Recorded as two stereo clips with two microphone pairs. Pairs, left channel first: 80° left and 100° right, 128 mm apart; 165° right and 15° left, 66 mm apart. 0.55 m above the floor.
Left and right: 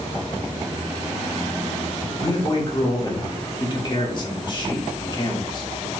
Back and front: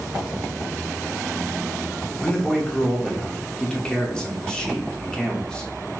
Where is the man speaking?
120° left, 1.0 m.